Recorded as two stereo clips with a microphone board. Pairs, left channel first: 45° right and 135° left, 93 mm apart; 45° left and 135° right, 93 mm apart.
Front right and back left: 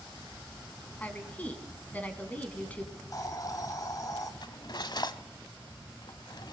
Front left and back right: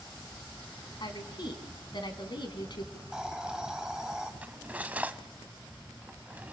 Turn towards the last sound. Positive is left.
turn(degrees=-65)